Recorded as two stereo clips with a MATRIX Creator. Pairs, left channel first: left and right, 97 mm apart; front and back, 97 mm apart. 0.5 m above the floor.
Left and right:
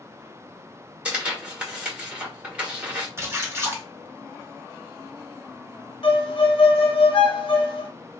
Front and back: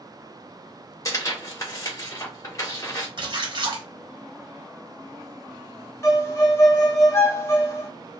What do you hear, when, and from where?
1.1 s tearing paper: 20° right, 1.2 m
3.2 s a splash: 150° right, 0.9 m
6.0 s a violin: 65° left, 0.5 m